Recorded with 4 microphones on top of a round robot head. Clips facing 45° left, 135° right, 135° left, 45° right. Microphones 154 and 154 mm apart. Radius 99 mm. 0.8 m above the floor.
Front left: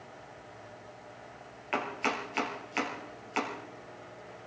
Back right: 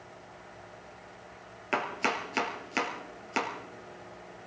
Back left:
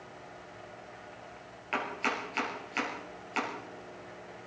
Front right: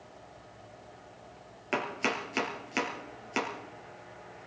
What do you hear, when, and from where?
1.7 s chopping: 90° right, 3.5 m